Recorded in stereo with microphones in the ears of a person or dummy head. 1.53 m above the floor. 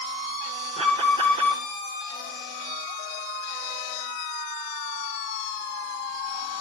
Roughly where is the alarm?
Right.